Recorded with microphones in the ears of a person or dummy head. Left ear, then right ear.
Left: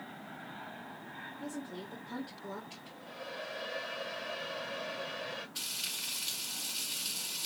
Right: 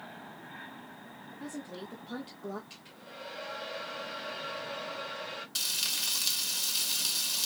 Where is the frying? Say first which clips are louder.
Right 9 dB; 75° right (ahead or behind), 1.5 m.